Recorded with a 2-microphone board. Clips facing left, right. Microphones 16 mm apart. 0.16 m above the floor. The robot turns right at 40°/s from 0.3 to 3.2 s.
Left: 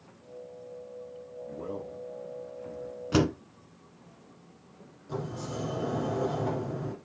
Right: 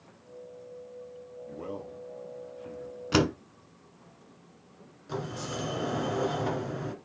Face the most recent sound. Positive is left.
turn(degrees=-40)  # may be behind; listen again after turning